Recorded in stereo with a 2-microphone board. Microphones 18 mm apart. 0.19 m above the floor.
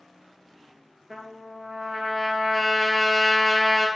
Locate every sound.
1.1 s a trumpet: 20° right (ahead or behind), 1.5 m